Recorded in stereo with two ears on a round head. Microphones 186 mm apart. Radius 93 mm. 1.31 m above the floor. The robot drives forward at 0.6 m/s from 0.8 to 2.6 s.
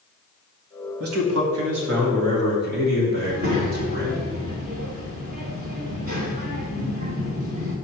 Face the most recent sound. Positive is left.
turn(degrees=-45)  # may be behind; listen again after turning